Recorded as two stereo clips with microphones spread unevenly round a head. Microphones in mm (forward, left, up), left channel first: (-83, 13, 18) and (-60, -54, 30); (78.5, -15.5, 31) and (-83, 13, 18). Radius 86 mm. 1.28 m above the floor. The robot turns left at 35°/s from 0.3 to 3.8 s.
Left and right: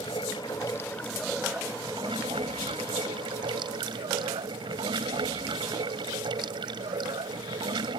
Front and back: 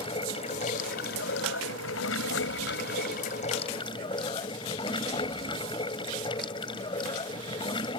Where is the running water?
50° left; by 8.0 s 75° right.